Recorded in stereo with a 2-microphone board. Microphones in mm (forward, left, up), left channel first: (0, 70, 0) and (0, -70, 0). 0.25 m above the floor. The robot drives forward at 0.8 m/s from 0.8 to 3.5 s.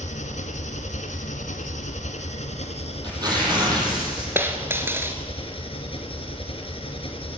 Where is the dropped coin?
15° right (ahead or behind), 1.6 m.